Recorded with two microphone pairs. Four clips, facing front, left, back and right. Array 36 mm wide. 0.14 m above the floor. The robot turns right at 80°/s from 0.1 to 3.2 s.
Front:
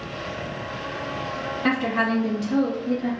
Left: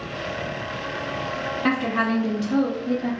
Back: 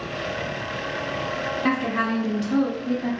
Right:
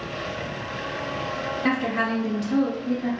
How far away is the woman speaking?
About 1.1 m.